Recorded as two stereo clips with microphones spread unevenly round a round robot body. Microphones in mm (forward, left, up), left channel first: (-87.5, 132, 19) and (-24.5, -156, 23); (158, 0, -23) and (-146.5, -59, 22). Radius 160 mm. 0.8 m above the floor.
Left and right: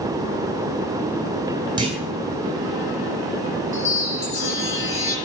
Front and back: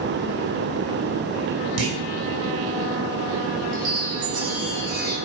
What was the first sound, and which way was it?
A clunk, 150° right.